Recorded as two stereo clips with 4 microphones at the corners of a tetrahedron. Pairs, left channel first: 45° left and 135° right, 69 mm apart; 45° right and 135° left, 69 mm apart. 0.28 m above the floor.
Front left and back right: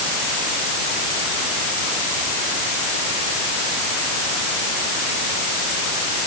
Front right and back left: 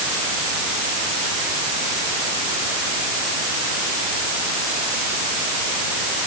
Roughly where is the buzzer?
No buzzer in this recording.